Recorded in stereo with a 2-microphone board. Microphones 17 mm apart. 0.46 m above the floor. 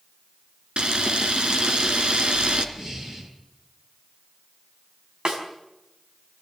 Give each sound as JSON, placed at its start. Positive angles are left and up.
{"t": 0.8, "sound": "a camera shutter", "side_deg": -85, "distance_m": 2.5}
{"t": 2.8, "sound": "breathing", "side_deg": -45, "distance_m": 8.0}
{"t": 5.2, "sound": "a snare drum", "side_deg": -70, "distance_m": 4.5}